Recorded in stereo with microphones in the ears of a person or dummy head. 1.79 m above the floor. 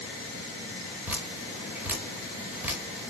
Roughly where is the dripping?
Centre.